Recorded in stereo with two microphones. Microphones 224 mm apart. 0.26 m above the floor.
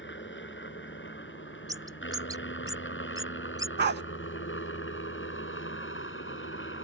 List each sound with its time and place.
0.0 s a helicopter: 55° left (ahead or behind); by 6.9 s 60° left (ahead or behind)
1.7 s a bird: 15° right (ahead or behind)
3.8 s a dog barking: 50° right (ahead or behind)